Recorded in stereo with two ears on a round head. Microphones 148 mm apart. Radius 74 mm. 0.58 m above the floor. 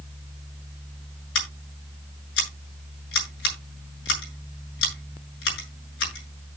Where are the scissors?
85° left, 7.5 m.